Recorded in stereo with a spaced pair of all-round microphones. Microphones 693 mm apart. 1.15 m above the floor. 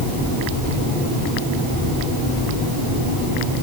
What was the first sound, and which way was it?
Only background noise.